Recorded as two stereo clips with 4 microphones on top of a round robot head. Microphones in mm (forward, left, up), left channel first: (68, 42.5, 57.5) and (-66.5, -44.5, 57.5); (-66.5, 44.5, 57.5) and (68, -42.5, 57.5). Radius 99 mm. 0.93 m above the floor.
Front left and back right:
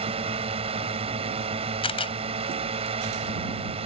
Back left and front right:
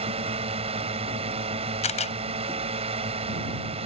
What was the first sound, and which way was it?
A drone, 90° right.